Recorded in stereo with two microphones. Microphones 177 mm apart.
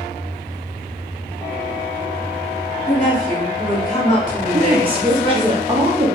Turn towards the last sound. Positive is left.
turn(degrees=-30)  # may be behind; listen again after turning